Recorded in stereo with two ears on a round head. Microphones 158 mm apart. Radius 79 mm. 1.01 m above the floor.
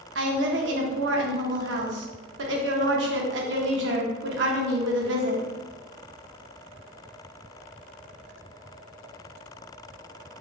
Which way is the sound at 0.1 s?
70° right (ahead or behind).